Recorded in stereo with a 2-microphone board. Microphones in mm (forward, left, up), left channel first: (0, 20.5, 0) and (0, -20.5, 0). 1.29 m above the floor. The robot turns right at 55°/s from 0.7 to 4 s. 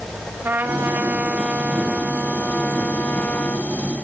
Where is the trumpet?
60° right, 3.5 m; by 3.7 s 105° left, 3.5 m.